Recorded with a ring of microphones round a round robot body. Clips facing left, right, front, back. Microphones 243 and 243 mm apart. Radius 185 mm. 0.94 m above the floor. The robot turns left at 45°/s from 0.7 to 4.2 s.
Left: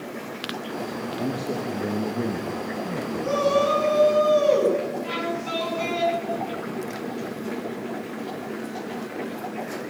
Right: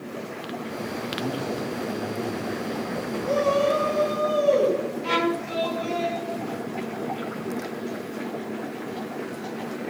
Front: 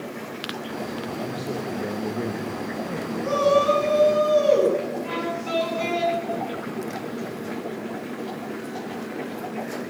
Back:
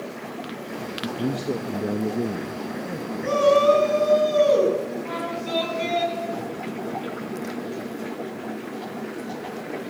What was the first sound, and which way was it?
A man speaking, 175° left.